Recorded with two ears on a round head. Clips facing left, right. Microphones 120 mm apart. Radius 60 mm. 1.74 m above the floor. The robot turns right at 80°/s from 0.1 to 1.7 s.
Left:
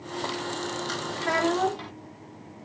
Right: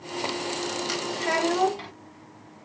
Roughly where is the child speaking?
Centre.